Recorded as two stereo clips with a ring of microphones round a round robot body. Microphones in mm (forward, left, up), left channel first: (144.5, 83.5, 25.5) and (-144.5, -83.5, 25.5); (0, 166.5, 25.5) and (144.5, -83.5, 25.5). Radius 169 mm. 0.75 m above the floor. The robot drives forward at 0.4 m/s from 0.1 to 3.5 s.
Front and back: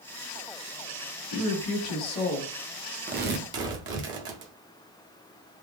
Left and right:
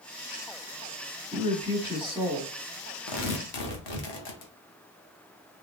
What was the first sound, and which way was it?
A woman speaking, 10° left.